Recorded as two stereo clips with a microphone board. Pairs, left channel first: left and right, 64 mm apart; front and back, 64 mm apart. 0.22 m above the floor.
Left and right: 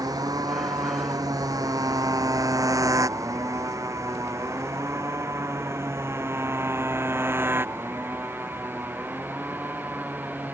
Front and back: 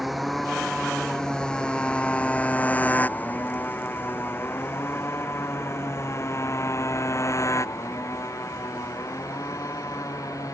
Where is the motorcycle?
90° right; by 10.6 s 30° right.